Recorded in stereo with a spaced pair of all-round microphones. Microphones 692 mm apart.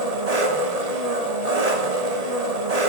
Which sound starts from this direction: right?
An engine running, at 0.0 s.